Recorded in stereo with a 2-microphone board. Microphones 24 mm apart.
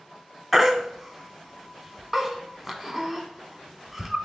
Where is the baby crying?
5° right (ahead or behind), 0.5 m.